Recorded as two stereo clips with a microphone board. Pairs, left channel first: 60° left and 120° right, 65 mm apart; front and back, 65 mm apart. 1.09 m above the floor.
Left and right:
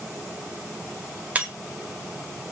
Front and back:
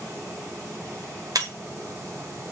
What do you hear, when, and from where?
1.4 s breaking glass: 175° left, 1.6 m